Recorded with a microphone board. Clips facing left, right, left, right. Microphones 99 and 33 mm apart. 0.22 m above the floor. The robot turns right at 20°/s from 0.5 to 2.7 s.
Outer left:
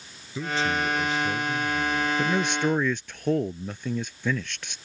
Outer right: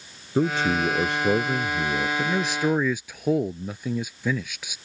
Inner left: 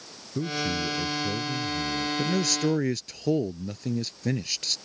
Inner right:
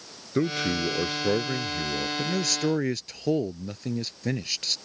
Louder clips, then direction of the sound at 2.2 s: Even, inner left 2 dB; 5° left (ahead or behind).